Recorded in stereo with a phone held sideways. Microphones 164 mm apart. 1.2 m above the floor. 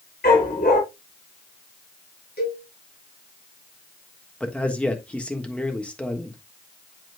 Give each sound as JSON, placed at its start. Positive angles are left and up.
{"t": 0.2, "sound": "a dog barking", "side_deg": 80, "distance_m": 6.0}
{"t": 2.4, "sound": "a cowbell", "side_deg": 80, "distance_m": 7.0}
{"t": 4.4, "sound": "a man speaking", "side_deg": 5, "distance_m": 1.5}